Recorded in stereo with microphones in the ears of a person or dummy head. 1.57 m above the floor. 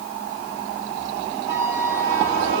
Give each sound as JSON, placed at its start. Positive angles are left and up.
{"t": 1.5, "sound": "a flute", "side_deg": -20, "distance_m": 4.0}